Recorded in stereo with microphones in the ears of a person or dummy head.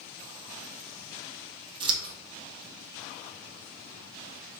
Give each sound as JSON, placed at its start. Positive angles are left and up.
{"t": 1.8, "sound": "scissors", "side_deg": -30, "distance_m": 0.6}